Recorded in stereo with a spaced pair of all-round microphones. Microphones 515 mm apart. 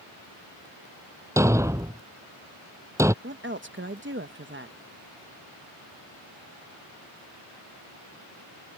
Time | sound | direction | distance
1.4 | a thud | 5° right (ahead or behind) | ?
3.2 | a woman speaking | 20° right (ahead or behind) | ?